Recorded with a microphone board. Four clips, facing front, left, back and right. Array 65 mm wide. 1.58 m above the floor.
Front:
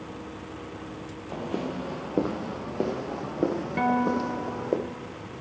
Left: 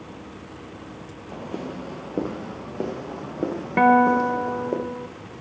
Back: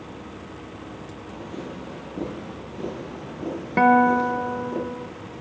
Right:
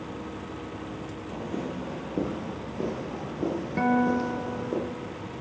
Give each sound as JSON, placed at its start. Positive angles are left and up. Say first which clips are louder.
{"t": 1.3, "sound": "footsteps", "louder": "left 1 dB, front 5 dB", "azimuth_deg": 25, "distance_m": 3.0}
{"t": 3.8, "sound": "a guitar", "louder": "left 8 dB, back 9 dB", "azimuth_deg": 130, "distance_m": 0.8}